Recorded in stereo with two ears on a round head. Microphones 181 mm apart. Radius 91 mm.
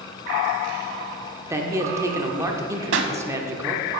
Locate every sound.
1.5 s a man speaking: 15° right (ahead or behind), 0.7 m
2.9 s a pop: 65° right (ahead or behind), 0.7 m